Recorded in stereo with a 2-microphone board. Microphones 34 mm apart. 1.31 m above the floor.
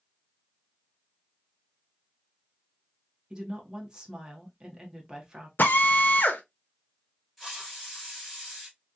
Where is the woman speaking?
20° right (ahead or behind), 1.2 m.